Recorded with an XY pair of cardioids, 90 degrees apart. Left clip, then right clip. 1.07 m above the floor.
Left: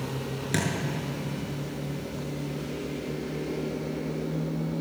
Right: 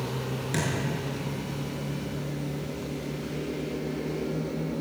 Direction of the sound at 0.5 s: 30° left.